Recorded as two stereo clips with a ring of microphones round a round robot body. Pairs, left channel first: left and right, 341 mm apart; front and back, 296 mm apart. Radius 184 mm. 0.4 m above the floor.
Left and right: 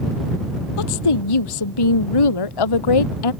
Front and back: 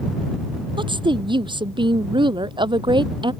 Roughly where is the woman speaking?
Left.